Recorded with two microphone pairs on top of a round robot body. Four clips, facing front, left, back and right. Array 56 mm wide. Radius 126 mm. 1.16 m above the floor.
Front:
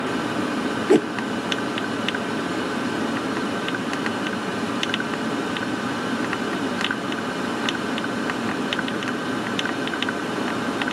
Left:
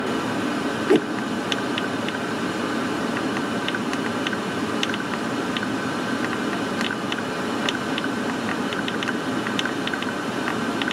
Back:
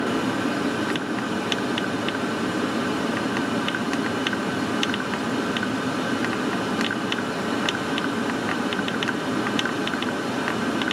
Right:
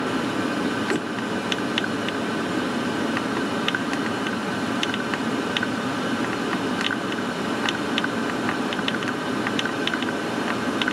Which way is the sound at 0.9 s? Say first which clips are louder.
Left 7 dB, front 9 dB; 35° left.